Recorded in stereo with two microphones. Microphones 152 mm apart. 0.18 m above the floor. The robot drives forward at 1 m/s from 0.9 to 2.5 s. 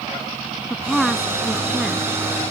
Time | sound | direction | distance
0.7 | a woman speaking | centre (ahead or behind) | ?